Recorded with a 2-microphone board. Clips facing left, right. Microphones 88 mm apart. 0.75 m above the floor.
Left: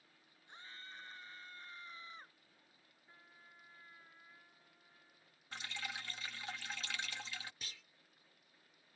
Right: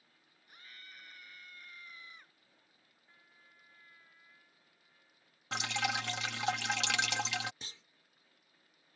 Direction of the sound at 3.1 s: 25° left (ahead or behind).